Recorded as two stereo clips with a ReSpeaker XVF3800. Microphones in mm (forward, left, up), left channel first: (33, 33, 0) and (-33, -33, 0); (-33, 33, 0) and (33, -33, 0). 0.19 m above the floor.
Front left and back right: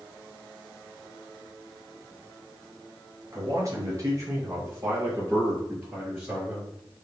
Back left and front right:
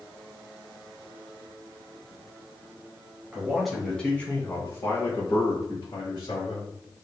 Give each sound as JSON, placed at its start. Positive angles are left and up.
{"t": 3.3, "sound": "a man speaking", "azimuth_deg": -120, "distance_m": 1.4}